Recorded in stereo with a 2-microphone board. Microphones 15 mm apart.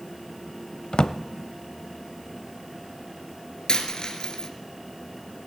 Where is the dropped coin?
55° left (ahead or behind), 1.5 m.